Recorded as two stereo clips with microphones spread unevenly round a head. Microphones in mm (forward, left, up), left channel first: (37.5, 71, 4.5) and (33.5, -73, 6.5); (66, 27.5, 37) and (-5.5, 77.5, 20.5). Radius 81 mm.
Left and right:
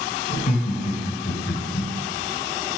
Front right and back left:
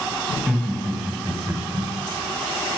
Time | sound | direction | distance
0.3 | laughter | 50° left | 1.4 m